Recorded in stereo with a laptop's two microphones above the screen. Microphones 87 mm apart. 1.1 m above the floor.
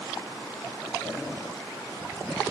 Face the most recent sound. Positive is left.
No sound to turn to.